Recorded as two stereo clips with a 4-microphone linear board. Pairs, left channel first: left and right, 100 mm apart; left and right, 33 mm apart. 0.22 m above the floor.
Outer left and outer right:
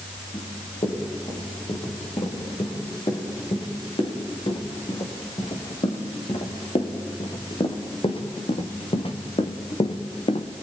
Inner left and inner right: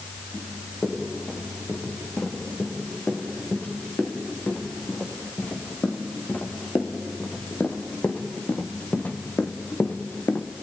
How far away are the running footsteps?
About 7 m.